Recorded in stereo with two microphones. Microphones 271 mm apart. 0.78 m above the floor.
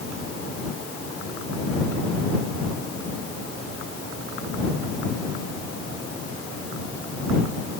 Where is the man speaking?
No man speaking in this recording.